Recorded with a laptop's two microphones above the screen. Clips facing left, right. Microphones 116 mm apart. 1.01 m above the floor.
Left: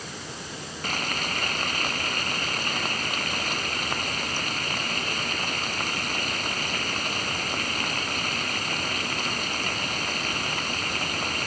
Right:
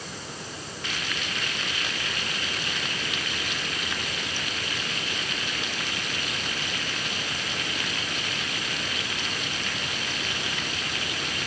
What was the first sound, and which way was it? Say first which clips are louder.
Frying: left 5 dB; 45° left (ahead or behind).